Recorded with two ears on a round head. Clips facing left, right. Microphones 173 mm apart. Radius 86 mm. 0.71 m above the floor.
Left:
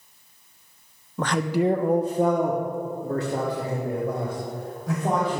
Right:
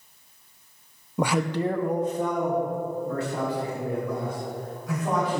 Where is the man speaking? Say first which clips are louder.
Left 2 dB; 15° right (ahead or behind), 0.5 m; by 5.4 s 35° left (ahead or behind), 4 m.